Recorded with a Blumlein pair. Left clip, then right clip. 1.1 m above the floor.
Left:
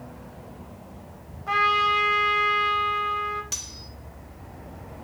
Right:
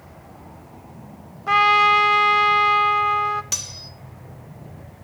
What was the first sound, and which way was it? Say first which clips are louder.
A trumpet: right 6 dB; 20° right.